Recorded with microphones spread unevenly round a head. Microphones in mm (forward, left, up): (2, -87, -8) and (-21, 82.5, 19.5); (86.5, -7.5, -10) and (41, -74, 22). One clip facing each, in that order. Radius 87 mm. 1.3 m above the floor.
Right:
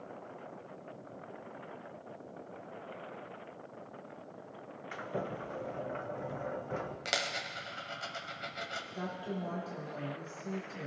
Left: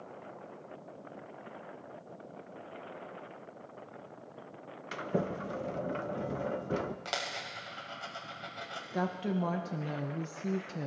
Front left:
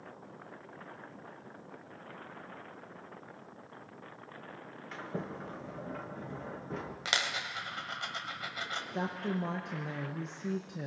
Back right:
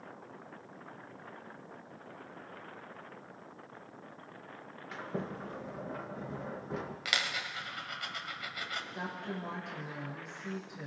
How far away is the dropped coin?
About 1.7 m.